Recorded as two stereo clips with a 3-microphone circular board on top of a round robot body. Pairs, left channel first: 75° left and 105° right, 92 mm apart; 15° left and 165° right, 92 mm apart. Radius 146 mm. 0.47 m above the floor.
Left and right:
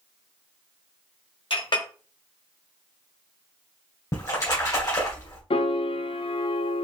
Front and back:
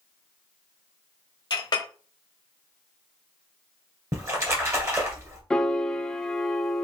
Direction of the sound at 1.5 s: 50° left.